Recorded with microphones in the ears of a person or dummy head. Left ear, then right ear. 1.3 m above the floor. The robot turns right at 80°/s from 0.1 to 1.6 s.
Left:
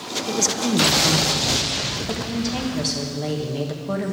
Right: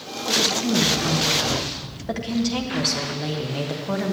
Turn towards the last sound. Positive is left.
turn(degrees=-170)